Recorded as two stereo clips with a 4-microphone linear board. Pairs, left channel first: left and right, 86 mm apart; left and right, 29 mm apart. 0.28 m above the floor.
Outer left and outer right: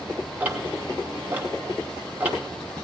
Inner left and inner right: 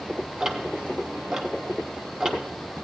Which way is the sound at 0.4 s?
15° right (ahead or behind).